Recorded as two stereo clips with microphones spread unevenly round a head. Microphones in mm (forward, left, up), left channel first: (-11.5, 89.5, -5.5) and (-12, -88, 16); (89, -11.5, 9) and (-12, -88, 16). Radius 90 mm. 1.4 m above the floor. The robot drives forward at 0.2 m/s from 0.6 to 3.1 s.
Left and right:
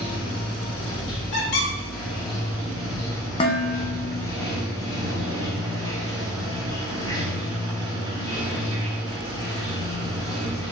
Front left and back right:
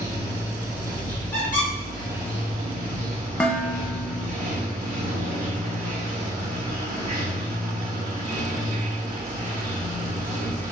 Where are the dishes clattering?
115° left, 0.5 m.